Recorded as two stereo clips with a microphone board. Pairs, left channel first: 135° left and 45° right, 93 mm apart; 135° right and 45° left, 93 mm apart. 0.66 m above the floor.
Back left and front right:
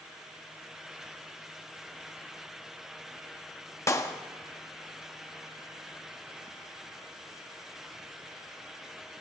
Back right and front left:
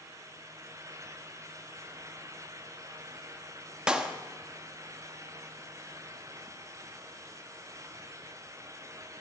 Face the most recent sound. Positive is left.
turn(degrees=115)